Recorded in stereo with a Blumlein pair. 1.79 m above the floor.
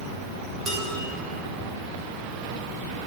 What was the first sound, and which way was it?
Dishes clattering, 25° right.